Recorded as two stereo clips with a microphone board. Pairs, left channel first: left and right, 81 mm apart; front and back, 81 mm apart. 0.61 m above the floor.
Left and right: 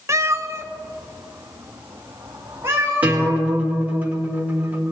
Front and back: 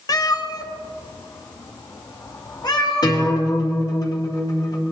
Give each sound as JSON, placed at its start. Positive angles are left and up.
{"t": 0.1, "sound": "a cat meowing", "azimuth_deg": -35, "distance_m": 0.7}
{"t": 3.0, "sound": "a guitar", "azimuth_deg": -20, "distance_m": 2.0}